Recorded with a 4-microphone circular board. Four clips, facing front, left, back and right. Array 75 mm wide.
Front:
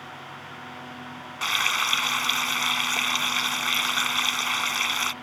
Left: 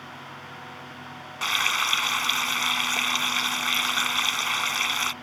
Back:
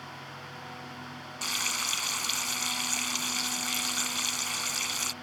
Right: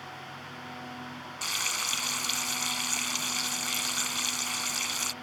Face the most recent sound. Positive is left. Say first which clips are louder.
# left 10 dB, front 10 dB
turn(degrees=45)